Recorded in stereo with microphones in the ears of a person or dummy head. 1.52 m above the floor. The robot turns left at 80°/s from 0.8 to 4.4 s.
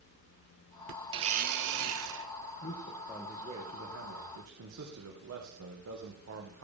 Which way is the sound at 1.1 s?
30° right.